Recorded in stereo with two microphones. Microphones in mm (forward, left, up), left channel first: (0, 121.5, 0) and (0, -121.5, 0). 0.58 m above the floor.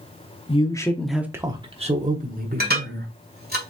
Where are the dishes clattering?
40° right (ahead or behind), 1.5 m.